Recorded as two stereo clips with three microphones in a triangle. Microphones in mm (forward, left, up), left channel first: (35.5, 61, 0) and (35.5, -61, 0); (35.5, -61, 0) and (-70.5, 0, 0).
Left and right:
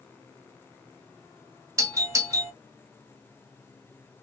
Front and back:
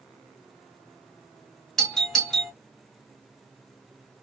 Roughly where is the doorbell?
Behind right.